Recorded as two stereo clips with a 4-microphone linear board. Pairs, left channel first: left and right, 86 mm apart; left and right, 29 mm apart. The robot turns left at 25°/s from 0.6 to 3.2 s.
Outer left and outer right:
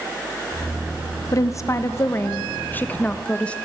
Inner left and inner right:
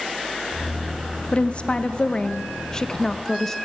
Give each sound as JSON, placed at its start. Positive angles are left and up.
{"t": 1.3, "sound": "a woman speaking", "azimuth_deg": 70, "distance_m": 0.5}